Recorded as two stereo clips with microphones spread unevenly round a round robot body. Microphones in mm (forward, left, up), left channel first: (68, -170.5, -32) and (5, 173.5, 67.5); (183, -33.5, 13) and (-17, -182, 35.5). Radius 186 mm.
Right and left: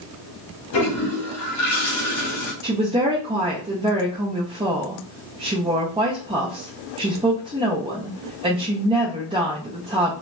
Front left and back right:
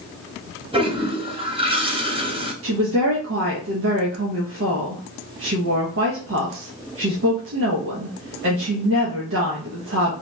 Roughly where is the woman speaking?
Behind.